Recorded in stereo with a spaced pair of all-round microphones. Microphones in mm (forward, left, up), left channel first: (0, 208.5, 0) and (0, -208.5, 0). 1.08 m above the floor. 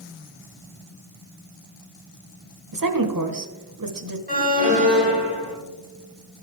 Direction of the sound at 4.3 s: 20° right (ahead or behind).